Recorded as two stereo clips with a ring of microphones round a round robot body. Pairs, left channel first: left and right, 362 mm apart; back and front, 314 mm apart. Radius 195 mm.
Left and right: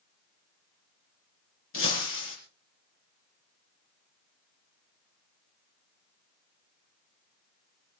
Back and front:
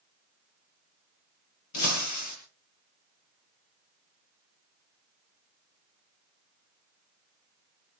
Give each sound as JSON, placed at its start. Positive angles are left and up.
{"t": 1.7, "sound": "breaking glass", "azimuth_deg": 145, "distance_m": 6.0}